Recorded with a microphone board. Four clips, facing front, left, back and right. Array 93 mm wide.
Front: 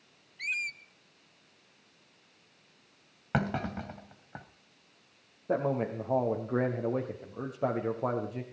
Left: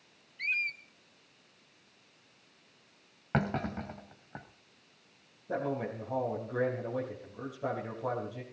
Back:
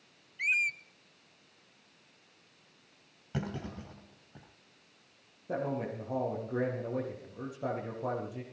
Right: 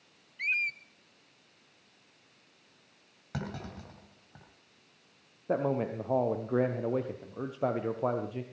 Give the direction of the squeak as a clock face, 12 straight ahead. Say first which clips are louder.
Right 2 dB, back 5 dB; 5 o'clock.